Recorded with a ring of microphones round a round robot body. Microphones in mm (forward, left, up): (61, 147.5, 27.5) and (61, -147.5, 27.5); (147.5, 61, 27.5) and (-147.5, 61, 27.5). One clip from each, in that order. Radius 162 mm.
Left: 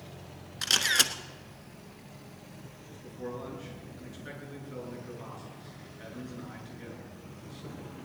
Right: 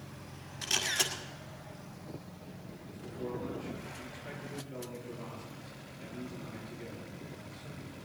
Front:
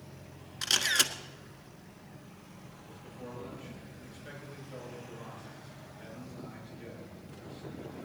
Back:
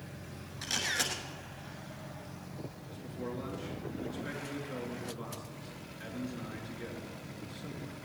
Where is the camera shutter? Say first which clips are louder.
Left 6 dB, front 5 dB; 40° left, 1.4 m.